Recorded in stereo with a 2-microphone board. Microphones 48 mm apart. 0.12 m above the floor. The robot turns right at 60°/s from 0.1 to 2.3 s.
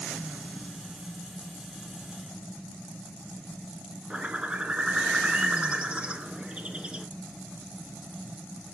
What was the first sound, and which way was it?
A bird, 25° right (ahead or behind).